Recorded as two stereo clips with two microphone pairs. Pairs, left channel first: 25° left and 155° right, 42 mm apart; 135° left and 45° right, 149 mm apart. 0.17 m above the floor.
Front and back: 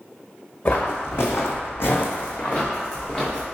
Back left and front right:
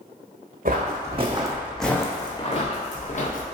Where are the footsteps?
20° right, 0.8 m; by 3.4 s 100° left, 1.3 m.